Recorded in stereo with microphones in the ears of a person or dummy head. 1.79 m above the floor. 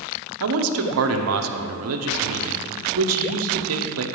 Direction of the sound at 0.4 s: 80° right.